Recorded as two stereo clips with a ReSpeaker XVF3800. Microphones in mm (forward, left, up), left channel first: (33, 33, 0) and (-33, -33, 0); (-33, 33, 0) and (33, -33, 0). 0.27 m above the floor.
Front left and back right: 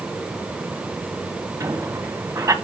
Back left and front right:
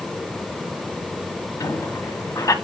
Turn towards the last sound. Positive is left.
turn(degrees=180)